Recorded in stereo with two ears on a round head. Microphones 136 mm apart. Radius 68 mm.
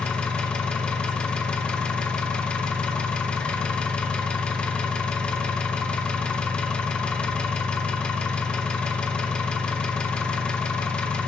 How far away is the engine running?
About 0.8 m.